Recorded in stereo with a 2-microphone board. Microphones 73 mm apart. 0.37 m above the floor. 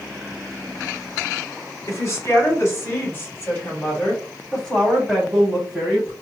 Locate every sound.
1.9 s a woman speaking: 45° left (ahead or behind), 1.9 m; by 6.1 s 5° right (ahead or behind), 2 m